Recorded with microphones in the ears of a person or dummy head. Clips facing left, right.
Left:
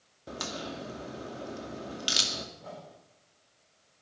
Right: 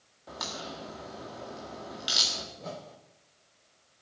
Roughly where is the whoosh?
Right.